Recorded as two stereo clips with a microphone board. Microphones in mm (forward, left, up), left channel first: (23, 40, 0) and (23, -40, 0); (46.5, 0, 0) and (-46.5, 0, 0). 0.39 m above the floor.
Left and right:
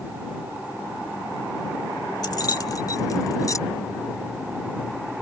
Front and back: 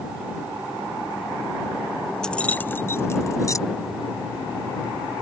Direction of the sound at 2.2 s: 80° left.